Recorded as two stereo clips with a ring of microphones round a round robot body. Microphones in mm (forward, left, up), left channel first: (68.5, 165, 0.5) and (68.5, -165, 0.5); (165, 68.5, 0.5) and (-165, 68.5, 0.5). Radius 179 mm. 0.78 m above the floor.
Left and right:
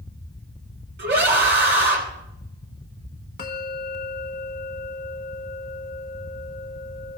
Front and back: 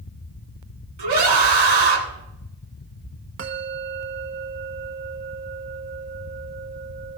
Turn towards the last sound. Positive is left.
turn(degrees=145)